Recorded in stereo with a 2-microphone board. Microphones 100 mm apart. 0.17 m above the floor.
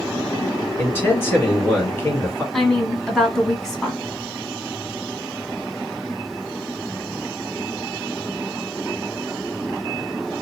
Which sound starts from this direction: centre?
A woman speaking, at 2.5 s.